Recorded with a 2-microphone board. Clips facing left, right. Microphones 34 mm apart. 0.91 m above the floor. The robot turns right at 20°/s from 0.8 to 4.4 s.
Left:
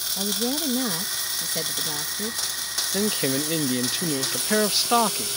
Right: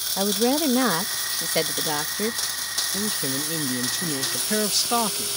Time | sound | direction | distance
0.2 | a woman speaking | 120° right | ?
2.9 | a man speaking | 45° left (ahead or behind) | ?